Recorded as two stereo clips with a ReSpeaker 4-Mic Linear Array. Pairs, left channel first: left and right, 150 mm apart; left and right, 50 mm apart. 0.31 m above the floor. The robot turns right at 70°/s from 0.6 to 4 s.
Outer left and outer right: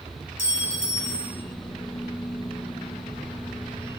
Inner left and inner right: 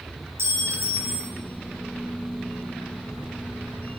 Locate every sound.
0.4 s a clink: 95° right, 1.3 m; by 1.3 s 45° right, 1.3 m